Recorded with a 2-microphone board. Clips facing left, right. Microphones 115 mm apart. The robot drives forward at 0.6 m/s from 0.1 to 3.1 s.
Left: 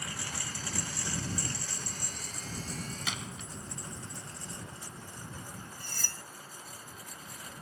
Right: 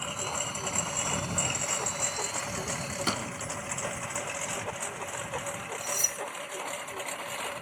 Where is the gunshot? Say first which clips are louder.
Right 8 dB; 45° right (ahead or behind).